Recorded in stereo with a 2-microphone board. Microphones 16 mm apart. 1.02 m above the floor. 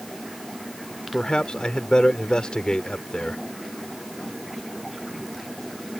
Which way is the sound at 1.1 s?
80° left.